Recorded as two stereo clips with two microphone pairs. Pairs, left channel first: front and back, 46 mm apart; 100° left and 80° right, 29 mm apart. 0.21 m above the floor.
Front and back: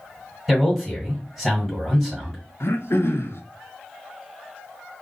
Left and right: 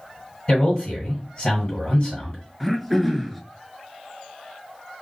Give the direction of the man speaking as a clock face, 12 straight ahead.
9 o'clock.